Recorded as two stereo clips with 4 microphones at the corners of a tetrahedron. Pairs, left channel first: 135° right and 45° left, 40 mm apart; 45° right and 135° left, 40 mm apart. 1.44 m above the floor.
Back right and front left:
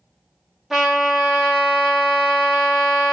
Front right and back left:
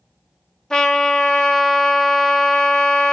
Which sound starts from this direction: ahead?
A trumpet, at 0.7 s.